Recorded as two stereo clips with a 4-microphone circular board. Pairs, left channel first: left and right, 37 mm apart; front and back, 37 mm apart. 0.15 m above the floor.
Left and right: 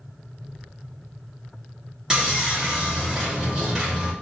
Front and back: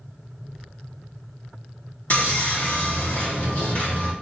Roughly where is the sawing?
Ahead.